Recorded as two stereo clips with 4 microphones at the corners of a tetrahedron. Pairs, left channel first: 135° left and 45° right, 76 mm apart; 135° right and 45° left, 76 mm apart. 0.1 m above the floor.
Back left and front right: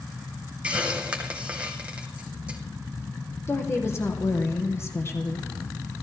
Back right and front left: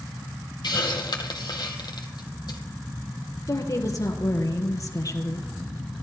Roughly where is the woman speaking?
Behind.